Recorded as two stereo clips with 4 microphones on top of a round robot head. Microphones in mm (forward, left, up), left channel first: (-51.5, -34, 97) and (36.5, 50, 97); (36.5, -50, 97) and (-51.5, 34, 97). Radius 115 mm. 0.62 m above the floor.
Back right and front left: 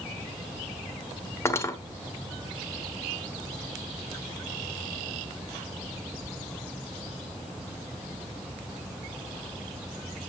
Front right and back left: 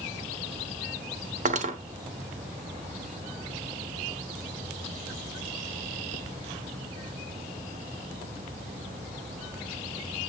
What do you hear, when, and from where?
1.4 s cutlery clinking: 155° left, 1.1 m